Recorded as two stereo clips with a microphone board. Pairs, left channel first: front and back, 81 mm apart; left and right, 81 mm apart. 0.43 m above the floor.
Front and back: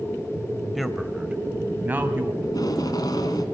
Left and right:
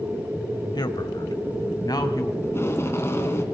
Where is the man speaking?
90° left, 1.7 m; by 2.3 s 120° left, 2.5 m.